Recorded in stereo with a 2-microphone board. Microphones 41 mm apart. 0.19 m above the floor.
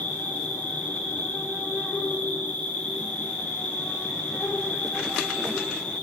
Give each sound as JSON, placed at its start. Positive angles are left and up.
{"t": 0.0, "sound": "an insect", "side_deg": 70, "distance_m": 5.5}